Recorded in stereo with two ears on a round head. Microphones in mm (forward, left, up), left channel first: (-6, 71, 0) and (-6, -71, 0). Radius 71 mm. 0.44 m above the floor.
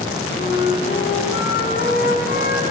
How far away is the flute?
About 4 m.